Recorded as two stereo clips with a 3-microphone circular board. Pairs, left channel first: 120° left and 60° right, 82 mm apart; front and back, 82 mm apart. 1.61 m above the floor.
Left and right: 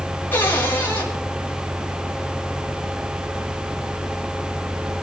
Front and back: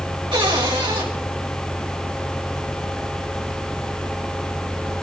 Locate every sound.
0.3 s a cupboard door: 175° right, 3.5 m